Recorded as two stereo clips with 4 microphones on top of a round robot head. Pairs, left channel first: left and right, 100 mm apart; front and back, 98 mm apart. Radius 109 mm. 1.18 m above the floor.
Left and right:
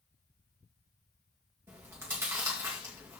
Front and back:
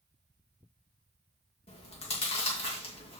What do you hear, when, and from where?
1.7 s chewing: 20° right, 2 m